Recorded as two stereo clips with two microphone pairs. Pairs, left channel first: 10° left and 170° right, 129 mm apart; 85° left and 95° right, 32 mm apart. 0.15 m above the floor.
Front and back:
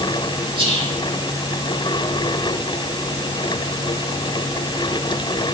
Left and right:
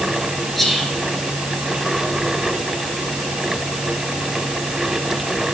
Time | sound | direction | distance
0.6 | whispering | 165° left | 2.5 m